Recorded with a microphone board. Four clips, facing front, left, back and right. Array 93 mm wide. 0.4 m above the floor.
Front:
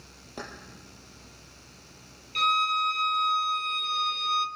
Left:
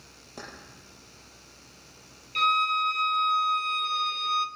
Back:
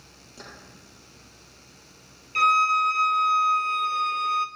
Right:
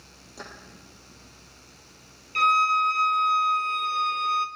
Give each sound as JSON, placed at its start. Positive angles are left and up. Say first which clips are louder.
{"t": 0.4, "sound": "keys jangling", "louder": "right 1 dB, front 6 dB", "azimuth_deg": 25, "distance_m": 6.5}
{"t": 2.4, "sound": "a violin", "louder": "right 4 dB, back 5 dB", "azimuth_deg": -155, "distance_m": 1.0}